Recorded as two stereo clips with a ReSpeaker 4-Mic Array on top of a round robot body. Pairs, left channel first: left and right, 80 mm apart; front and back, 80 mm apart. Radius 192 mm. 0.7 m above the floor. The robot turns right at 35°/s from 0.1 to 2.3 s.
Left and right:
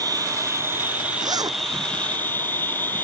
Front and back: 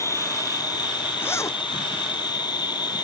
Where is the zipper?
60° right; by 1.6 s 45° right.